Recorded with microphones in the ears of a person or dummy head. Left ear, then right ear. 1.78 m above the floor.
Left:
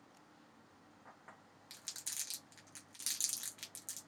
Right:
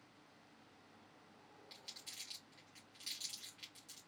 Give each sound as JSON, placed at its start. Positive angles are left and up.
{"t": 1.7, "sound": "crumpling", "side_deg": 40, "distance_m": 0.9}